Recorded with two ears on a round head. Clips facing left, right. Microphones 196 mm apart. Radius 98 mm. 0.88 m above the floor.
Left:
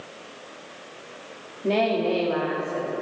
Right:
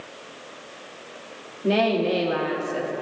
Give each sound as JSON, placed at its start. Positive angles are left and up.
{"t": 1.6, "sound": "a woman speaking", "side_deg": -5, "distance_m": 1.6}